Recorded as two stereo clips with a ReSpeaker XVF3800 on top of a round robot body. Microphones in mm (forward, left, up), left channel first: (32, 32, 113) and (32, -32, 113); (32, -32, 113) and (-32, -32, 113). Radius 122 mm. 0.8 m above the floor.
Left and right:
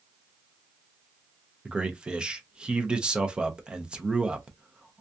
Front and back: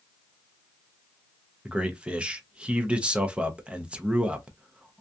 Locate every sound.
1.6 s a man speaking: 135° right, 0.7 m